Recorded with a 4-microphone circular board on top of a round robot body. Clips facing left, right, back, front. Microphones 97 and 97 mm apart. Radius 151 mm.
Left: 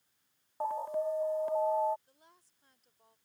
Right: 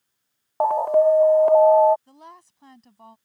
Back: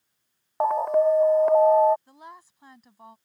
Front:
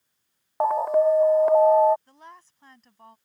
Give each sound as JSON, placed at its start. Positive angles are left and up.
{"t": 0.6, "sound": "an alarm", "azimuth_deg": -90}
{"t": 2.1, "sound": "a woman speaking", "azimuth_deg": -100}